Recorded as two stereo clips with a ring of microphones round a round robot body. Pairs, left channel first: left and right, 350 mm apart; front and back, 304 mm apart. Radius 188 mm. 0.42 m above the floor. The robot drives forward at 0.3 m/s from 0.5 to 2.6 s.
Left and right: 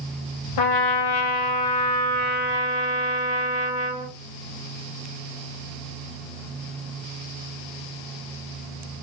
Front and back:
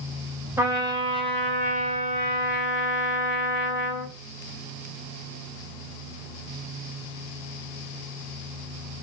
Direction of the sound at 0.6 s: 100° left.